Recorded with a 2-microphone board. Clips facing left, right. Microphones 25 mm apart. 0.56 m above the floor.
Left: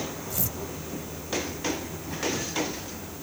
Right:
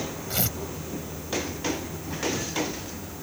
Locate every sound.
0.3 s tearing paper: 70° right (ahead or behind)